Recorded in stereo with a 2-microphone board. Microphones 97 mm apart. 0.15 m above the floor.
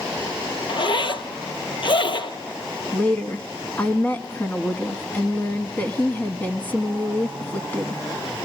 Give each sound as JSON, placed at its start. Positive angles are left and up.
{"t": 0.7, "sound": "a zipper", "side_deg": 60, "distance_m": 0.9}
{"t": 2.9, "sound": "a woman speaking", "side_deg": 20, "distance_m": 1.0}